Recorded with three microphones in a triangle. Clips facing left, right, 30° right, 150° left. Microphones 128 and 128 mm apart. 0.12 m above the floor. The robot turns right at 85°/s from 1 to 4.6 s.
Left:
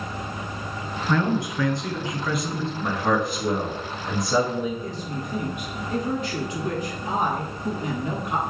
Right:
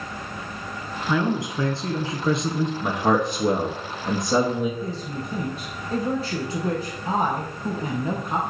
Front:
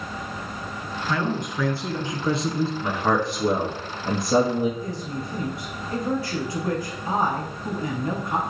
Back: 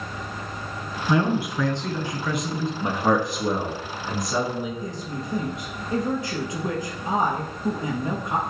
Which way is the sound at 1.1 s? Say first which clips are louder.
Even, back 5 dB; 165° right.